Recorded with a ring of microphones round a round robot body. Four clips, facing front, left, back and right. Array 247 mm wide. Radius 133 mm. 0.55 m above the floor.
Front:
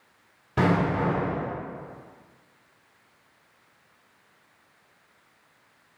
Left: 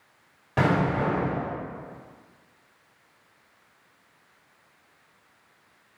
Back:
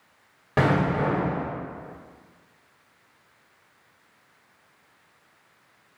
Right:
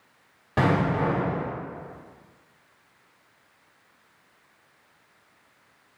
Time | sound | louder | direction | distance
0.6 | an explosion | even, back 1 dB | 175° right | 1.7 m